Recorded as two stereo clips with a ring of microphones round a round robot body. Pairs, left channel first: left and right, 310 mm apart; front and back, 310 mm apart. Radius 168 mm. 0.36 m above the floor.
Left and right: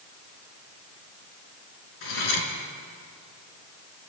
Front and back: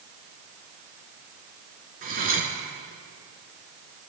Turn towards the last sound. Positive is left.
turn(degrees=115)